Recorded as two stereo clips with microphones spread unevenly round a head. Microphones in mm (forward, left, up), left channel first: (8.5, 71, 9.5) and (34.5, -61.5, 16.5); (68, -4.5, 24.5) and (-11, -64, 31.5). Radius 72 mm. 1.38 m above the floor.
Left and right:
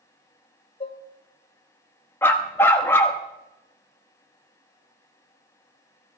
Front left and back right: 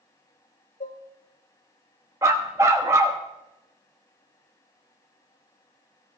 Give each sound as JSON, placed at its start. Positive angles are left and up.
{"t": 0.8, "sound": "dishes clattering", "azimuth_deg": 50, "distance_m": 0.8}
{"t": 2.2, "sound": "a dog barking", "azimuth_deg": 170, "distance_m": 0.8}